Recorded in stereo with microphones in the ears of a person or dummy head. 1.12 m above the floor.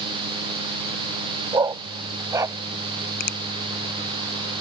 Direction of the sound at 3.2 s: 55° left (ahead or behind).